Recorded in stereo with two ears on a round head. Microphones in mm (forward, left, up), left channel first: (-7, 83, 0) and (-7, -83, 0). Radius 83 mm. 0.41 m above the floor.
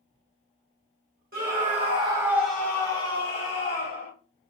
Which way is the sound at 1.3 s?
50° right (ahead or behind).